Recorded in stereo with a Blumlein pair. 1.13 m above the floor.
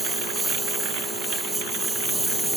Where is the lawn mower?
5° right.